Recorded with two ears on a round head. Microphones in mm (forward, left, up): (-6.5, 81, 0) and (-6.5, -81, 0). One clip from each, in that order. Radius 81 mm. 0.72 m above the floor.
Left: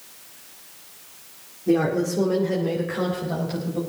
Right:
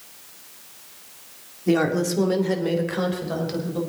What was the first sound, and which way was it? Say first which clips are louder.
A woman speaking: even; 65° right (ahead or behind).